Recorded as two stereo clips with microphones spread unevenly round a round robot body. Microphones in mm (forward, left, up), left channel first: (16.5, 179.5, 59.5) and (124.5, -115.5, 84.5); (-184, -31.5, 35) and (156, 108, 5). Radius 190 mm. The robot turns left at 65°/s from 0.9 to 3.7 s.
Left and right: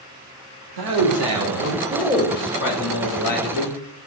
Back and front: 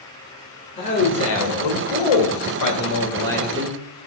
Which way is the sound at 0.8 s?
85° right.